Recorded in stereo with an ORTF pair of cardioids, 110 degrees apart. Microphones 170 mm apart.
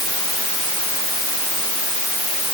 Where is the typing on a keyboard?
I don't hear typing on a keyboard.